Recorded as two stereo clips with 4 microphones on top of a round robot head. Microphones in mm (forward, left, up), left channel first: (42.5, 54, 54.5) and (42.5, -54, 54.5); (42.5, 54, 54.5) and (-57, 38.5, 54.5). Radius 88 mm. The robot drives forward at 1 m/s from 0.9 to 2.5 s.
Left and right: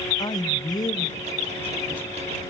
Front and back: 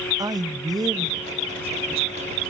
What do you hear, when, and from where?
0.2 s a man speaking: 140° left, 0.6 m; by 2.3 s 170° left, 1.8 m